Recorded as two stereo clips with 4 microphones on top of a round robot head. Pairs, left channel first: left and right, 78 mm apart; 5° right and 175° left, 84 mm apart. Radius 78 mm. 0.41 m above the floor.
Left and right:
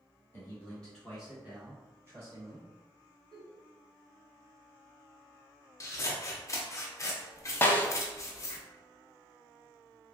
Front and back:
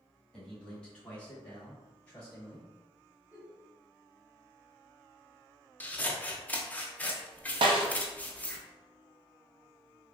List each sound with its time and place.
0.3 s a man speaking: 70° left, 1.4 m; by 2.7 s 75° right, 1.8 m
3.3 s a giggle: 115° right, 0.9 m
5.8 s scissors: 60° left, 0.6 m
7.6 s a snare drum: 155° left, 0.5 m